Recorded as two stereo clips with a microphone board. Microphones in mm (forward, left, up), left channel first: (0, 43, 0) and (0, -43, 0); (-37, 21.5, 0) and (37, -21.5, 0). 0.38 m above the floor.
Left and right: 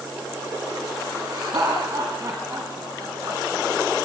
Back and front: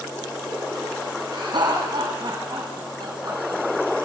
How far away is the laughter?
About 3 m.